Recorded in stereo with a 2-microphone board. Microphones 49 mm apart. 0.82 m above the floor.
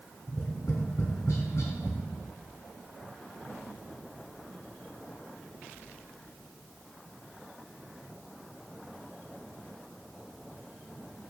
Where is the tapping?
80° left, 2.5 m.